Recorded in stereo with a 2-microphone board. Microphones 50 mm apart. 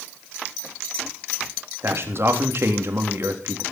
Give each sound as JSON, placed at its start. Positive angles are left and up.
{"t": 1.8, "sound": "a man speaking", "side_deg": -50, "distance_m": 3.5}